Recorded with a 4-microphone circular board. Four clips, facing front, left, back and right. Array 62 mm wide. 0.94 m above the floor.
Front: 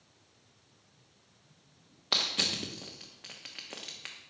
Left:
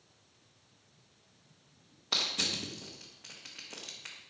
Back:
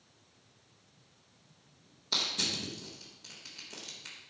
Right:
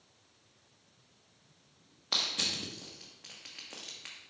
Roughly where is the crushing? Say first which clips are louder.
Left 1 dB, front 3 dB; ahead.